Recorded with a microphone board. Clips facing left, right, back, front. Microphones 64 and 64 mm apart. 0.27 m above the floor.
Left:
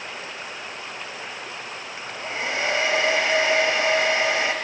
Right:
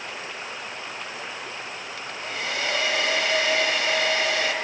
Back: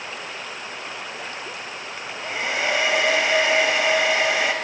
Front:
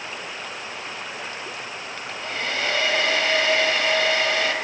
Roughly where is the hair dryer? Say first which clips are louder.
Left 3 dB, back 2 dB; behind left.